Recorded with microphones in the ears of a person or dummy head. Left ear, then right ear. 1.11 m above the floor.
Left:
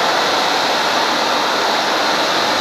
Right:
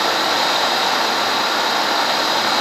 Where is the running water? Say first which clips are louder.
Left 2 dB; 30° right (ahead or behind), 3.5 m.